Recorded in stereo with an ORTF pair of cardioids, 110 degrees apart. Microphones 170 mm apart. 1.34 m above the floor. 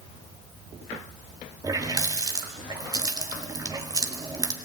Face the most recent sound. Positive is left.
turn(degrees=-20)